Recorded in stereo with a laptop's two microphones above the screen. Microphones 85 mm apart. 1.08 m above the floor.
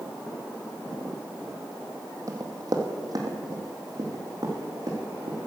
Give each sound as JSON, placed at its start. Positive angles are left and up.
{"t": 2.3, "sound": "running footsteps", "side_deg": -40, "distance_m": 1.5}